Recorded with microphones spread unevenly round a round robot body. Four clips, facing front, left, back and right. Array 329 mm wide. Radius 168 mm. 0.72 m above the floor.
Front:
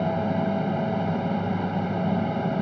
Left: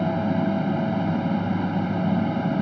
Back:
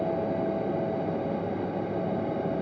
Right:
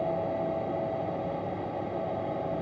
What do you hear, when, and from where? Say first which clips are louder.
0.0 s an aircraft: left 6 dB, front 2 dB; 80° left